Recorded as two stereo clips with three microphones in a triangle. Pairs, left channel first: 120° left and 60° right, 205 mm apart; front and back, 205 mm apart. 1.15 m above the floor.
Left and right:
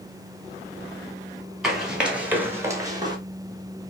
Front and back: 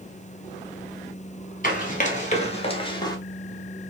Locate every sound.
1.6 s running footsteps: 30° left, 1.6 m; by 3.2 s 35° right, 1.1 m